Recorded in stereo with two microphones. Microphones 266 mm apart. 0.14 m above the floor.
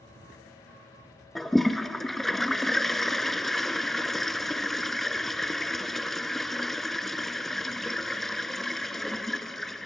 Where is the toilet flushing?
Centre (ahead or behind), 0.6 m.